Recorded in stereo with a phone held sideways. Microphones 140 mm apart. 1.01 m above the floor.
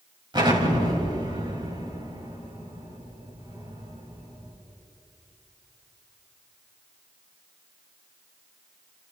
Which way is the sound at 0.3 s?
35° right (ahead or behind).